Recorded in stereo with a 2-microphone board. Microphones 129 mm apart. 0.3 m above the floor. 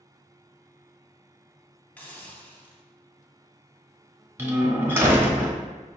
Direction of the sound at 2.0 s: 10° left (ahead or behind).